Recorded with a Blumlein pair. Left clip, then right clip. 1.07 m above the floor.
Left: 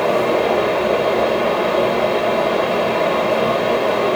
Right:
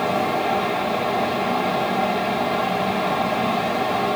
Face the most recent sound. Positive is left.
turn(degrees=45)